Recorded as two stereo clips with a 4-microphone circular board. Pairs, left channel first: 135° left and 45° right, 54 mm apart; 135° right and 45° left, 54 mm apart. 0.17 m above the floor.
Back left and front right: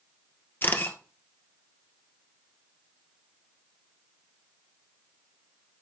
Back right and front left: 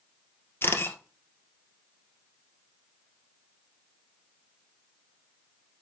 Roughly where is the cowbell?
No cowbell in this recording.